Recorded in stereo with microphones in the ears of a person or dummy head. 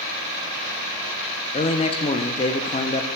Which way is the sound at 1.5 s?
25° left (ahead or behind).